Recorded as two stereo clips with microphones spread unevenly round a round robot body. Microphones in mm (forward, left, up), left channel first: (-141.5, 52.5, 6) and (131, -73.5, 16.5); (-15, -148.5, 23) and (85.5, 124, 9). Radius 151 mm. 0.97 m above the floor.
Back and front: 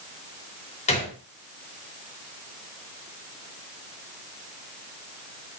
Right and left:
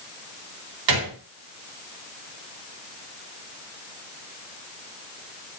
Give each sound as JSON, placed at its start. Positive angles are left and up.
{"t": 0.9, "sound": "a gunshot", "azimuth_deg": 85, "distance_m": 3.5}